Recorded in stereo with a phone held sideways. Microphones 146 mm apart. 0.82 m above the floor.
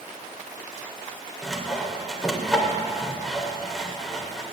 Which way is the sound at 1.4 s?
Centre (ahead or behind).